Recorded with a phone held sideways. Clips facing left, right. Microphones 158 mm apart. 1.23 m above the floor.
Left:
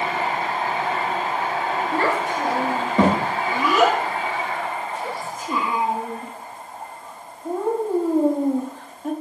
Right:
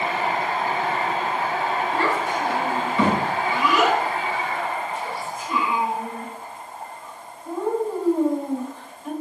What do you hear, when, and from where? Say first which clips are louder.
1.9 s a child speaking: left 1 dB; 45° left (ahead or behind), 0.8 m